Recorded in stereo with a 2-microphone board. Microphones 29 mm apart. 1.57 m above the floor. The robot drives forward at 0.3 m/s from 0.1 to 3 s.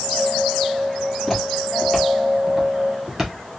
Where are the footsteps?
10° left (ahead or behind), 1.6 m; by 3.3 s 20° right (ahead or behind), 1.6 m.